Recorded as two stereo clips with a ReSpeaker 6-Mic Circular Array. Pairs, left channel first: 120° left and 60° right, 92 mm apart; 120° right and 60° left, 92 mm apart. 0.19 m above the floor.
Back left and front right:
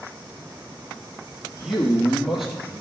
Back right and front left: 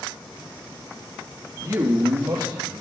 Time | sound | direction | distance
1.6 | a man speaking | 25° left | 4 m